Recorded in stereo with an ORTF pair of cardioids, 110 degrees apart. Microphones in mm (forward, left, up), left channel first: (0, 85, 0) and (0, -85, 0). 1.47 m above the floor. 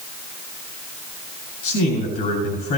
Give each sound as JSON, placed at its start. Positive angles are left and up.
{"t": 1.6, "sound": "a man speaking", "azimuth_deg": 65, "distance_m": 7.0}